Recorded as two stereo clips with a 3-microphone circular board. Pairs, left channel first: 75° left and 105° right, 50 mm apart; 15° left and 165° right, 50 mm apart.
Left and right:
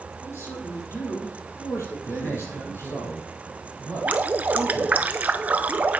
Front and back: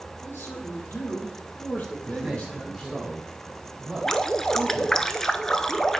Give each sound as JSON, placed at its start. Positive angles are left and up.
{"t": 0.2, "sound": "a man speaking", "azimuth_deg": 55, "distance_m": 3.5}
{"t": 2.0, "sound": "a man speaking", "azimuth_deg": 105, "distance_m": 5.5}
{"t": 4.0, "sound": "dripping", "azimuth_deg": -60, "distance_m": 0.5}